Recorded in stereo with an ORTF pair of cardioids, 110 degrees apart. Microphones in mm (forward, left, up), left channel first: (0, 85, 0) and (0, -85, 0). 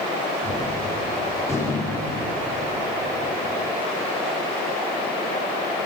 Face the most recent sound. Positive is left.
turn(degrees=20)